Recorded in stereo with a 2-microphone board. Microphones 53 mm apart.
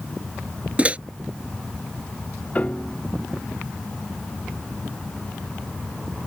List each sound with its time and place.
0.8 s a microwave: 25° right (ahead or behind)
2.5 s a piano: 25° left (ahead or behind)